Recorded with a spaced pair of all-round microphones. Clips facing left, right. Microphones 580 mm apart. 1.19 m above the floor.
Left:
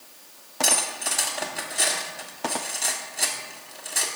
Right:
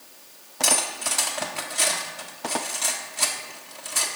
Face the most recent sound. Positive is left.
turn(degrees=-30)  # may be behind; listen again after turning